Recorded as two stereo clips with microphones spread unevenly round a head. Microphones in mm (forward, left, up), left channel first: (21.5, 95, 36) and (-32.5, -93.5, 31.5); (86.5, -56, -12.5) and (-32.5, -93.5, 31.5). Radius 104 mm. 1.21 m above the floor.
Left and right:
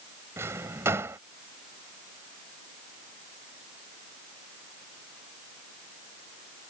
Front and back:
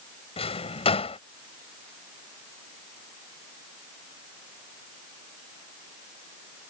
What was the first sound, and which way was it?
A drawer, 30° right.